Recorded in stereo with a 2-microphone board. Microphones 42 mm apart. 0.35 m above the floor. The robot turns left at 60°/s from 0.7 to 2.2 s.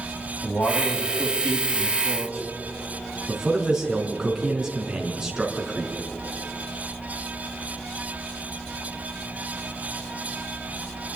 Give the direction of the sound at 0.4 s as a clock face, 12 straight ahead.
9 o'clock.